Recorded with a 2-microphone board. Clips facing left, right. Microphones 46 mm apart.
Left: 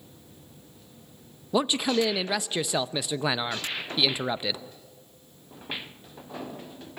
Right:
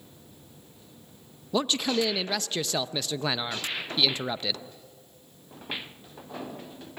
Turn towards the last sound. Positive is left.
turn(degrees=15)  # may be behind; listen again after turning